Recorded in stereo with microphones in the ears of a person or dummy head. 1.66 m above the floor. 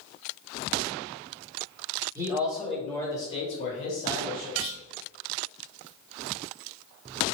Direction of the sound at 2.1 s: 15° right (ahead or behind).